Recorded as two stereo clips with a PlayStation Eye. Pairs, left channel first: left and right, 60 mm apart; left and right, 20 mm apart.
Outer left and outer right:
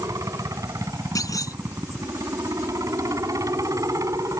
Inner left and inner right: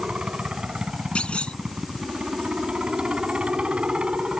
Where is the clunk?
70° left (ahead or behind).